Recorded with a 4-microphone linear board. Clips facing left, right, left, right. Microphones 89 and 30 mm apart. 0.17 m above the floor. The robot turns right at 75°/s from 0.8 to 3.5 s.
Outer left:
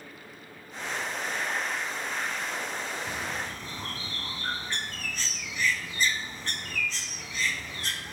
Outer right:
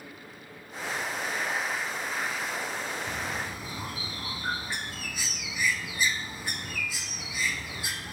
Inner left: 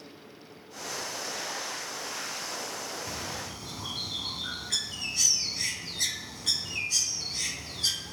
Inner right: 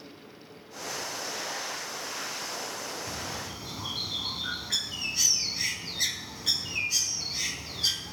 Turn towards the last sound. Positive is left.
turn(degrees=-160)